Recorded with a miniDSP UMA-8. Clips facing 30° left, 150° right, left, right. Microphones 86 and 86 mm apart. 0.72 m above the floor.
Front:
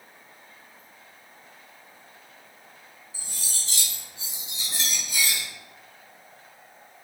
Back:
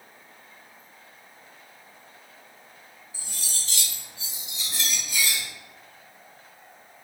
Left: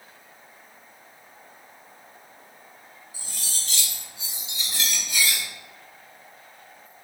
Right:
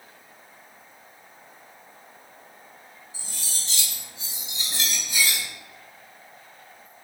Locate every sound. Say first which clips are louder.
3.1 s cutlery clinking: back 1 dB, even; 30° right, 1.2 m